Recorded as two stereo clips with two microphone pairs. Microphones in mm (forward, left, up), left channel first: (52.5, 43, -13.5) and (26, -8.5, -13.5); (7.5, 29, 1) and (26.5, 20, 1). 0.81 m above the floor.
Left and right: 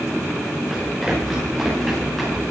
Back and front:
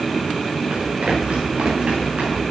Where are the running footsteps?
25° right, 8 m.